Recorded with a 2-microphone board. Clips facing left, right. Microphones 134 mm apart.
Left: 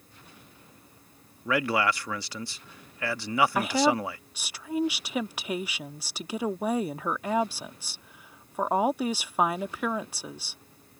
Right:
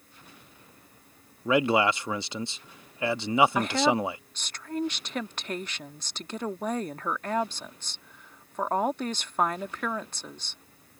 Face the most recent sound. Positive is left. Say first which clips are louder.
# even
turn(degrees=10)  # may be behind; listen again after turning